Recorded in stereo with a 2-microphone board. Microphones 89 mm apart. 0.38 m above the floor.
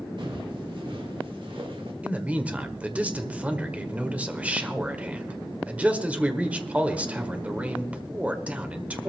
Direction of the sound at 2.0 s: 15° right (ahead or behind).